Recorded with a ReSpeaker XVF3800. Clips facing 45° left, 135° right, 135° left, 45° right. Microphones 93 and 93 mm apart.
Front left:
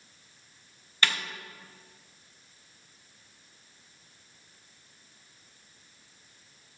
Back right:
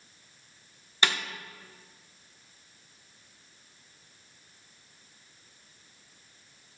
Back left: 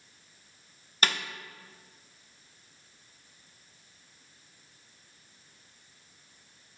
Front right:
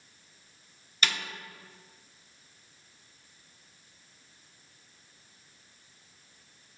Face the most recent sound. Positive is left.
turn(degrees=160)